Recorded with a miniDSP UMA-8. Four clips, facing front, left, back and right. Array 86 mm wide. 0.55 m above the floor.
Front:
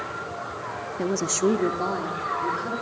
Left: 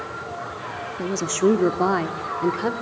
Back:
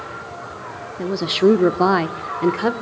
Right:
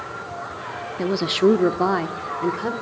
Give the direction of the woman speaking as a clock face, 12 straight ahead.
3 o'clock.